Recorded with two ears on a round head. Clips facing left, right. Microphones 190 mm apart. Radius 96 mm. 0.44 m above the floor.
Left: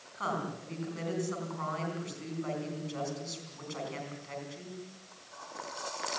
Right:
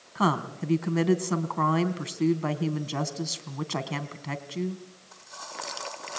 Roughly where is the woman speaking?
Right.